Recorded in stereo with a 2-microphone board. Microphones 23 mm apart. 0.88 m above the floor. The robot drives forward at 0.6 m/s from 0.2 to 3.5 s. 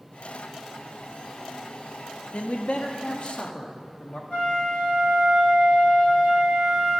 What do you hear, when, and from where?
2.3 s a man speaking: 65° left (ahead or behind), 0.9 m; by 4.2 s 40° left (ahead or behind), 1.2 m
4.3 s a flute: 75° left (ahead or behind), 3 m